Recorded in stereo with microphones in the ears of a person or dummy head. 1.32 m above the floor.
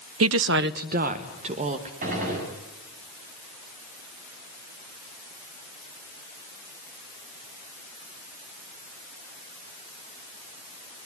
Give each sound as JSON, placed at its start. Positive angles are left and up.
{"t": 0.2, "sound": "a woman speaking", "side_deg": -75, "distance_m": 0.5}
{"t": 2.0, "sound": "a gunshot", "side_deg": -45, "distance_m": 7.5}